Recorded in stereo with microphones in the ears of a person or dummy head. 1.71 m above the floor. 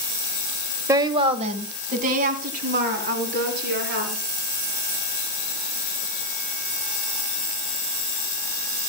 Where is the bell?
I don't hear a bell.